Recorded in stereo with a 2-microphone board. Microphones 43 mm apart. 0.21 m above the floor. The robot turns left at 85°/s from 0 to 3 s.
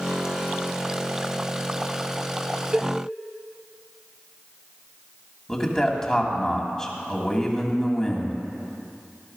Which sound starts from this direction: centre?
A man speaking, at 5.5 s.